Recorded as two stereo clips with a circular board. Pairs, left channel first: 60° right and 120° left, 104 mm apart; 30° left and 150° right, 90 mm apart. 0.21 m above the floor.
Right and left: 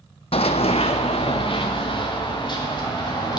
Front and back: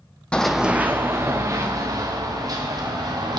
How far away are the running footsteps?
About 0.5 m.